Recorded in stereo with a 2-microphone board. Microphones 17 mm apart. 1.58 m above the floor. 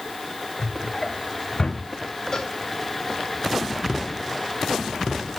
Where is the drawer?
35° left (ahead or behind), 5.5 m.